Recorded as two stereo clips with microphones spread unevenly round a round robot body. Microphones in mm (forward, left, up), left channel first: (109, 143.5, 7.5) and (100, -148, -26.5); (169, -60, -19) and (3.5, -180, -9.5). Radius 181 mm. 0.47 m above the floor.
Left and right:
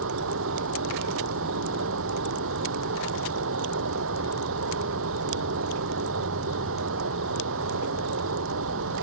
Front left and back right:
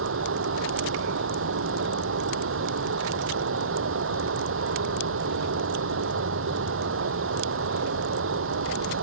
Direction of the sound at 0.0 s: 150° right.